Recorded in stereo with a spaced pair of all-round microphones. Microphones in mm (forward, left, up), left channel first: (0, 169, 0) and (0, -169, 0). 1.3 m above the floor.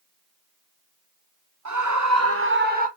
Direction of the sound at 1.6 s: 55° right (ahead or behind).